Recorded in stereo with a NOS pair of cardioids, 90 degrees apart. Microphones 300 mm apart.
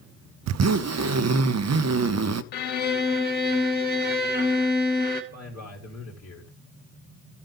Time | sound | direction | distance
0.5 | a zipper | 60° right | 0.6 m
2.5 | a violin | 35° left | 2 m
5.3 | a man speaking | 60° left | 3 m